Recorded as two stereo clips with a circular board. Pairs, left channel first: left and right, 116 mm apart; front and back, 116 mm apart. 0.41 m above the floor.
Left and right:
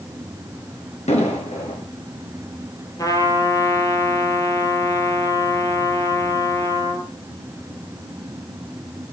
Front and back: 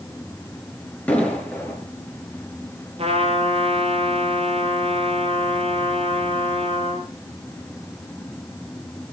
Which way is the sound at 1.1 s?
80° left.